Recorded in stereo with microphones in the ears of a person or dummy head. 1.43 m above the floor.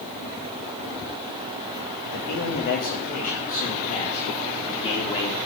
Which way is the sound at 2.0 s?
55° left (ahead or behind).